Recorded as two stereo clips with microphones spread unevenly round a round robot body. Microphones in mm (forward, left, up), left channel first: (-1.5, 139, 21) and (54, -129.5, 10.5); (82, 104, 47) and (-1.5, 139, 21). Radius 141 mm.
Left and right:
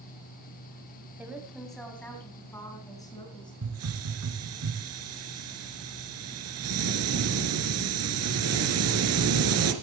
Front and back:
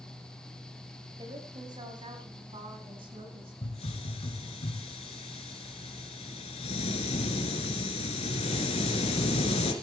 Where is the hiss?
40° right, 2 m.